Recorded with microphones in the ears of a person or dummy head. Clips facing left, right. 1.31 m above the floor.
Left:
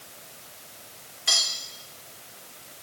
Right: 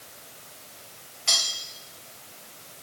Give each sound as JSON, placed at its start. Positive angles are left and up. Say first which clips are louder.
{"t": 1.3, "sound": "cutlery clinking", "louder": "even", "side_deg": 15, "distance_m": 1.8}